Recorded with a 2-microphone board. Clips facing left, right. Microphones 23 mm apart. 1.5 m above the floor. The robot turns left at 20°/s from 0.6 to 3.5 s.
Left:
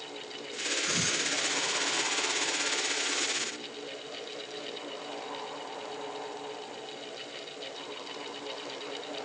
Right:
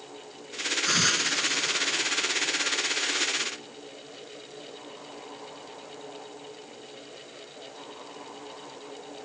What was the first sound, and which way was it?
A hiss, 40° right (ahead or behind).